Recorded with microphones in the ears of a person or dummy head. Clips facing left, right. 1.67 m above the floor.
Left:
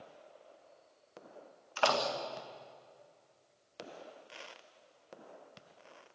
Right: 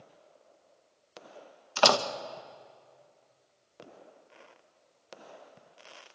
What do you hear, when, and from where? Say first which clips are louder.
1.8 s a door slam: right 6 dB; 70° right (ahead or behind), 1.5 m